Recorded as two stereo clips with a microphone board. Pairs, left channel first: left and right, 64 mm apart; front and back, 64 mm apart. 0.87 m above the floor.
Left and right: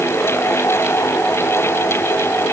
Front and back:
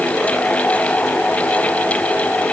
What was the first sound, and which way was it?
Only background noise.